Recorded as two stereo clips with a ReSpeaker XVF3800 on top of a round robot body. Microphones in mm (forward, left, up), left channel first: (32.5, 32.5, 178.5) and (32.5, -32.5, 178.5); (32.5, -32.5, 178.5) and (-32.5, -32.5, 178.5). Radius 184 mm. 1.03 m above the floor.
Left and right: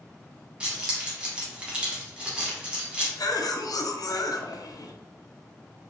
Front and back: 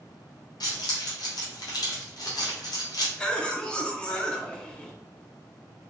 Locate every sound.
0.6 s keys jangling: 15° right, 0.8 m
3.2 s a cough: 75° left, 0.6 m